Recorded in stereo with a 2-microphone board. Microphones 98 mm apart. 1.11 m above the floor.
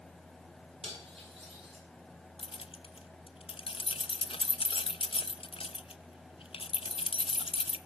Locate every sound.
0.8 s cutlery clinking: 85° right, 6.5 m
2.4 s keys jangling: 70° left (ahead or behind), 0.6 m